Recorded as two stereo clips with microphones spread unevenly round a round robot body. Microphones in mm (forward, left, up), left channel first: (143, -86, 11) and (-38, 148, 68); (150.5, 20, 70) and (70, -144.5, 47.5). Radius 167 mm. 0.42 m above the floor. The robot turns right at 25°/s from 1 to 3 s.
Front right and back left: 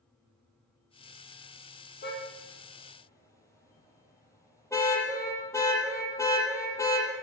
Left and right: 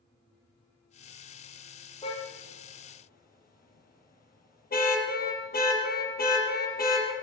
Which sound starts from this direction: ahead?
A car horn, at 2.0 s.